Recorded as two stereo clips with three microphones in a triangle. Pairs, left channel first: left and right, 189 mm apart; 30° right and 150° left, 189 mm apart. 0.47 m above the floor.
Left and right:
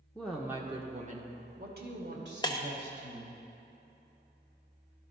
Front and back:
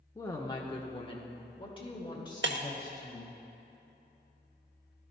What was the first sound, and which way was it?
A woman speaking, 20° left.